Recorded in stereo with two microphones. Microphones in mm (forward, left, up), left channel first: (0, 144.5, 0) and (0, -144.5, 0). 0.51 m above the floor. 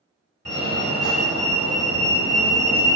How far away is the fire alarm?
About 2 m.